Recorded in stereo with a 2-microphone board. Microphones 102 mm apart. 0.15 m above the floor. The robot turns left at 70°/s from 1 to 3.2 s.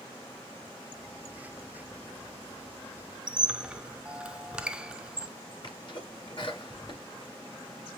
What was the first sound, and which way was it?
A squeak, 10° right (ahead or behind).